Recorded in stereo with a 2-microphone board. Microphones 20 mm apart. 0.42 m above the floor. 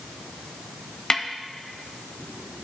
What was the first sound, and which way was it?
A snare drum, 40° left (ahead or behind).